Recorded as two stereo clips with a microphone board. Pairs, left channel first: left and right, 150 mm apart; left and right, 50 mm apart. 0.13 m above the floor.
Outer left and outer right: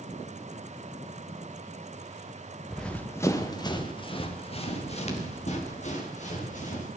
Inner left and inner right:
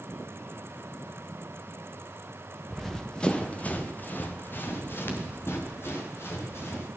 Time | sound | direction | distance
2.7 | running footsteps | centre (ahead or behind) | 1.7 m